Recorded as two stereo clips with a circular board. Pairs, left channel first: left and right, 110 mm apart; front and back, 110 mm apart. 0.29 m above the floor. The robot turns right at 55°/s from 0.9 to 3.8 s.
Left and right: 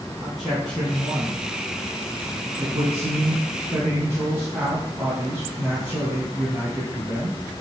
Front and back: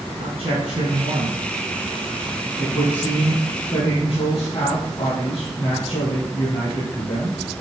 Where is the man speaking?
Straight behind, 2.5 m; by 7.4 s 20° right, 2.5 m.